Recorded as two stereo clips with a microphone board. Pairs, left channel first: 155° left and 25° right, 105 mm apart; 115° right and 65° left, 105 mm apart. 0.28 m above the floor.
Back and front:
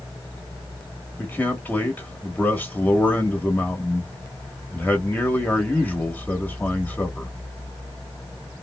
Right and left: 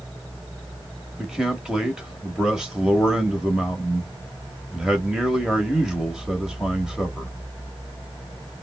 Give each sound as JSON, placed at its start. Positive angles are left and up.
{"t": 1.2, "sound": "a man speaking", "azimuth_deg": 135, "distance_m": 0.9}